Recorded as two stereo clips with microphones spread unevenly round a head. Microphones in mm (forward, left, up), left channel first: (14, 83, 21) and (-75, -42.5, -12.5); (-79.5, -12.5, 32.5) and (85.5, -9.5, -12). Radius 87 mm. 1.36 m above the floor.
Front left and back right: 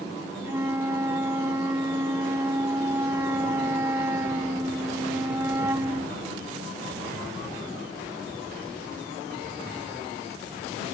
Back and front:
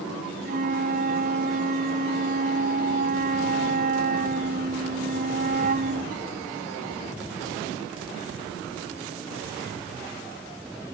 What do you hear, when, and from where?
0.5 s a flute: 45° right